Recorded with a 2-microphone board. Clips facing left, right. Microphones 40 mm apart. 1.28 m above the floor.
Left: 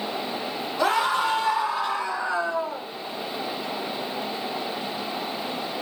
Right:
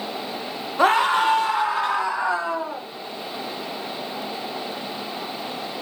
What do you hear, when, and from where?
0.8 s a scream: 40° right (ahead or behind), 0.8 m; by 2.8 s 80° right, 1.6 m